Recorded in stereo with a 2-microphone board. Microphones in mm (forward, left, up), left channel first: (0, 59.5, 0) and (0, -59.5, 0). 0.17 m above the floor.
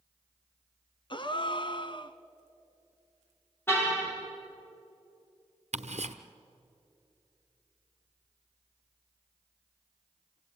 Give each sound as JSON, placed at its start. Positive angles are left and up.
{"t": 1.1, "sound": "a gasp", "side_deg": 40, "distance_m": 0.8}
{"t": 3.7, "sound": "a car horn", "side_deg": 20, "distance_m": 6.5}
{"t": 5.7, "sound": "ticking", "side_deg": -70, "distance_m": 1.1}